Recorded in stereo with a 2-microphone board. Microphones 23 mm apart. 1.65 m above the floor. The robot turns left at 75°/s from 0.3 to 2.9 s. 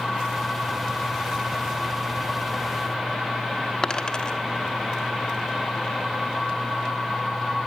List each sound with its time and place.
3.8 s a dropped coin: 30° left (ahead or behind), 1.2 m